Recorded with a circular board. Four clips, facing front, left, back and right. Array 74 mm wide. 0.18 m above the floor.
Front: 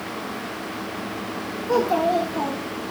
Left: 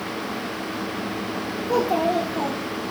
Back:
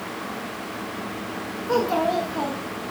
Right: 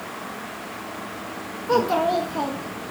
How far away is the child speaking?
About 1.1 m.